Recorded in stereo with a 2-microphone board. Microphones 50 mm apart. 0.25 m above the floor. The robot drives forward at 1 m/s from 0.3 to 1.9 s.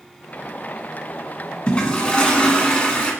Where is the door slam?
No door slam in this recording.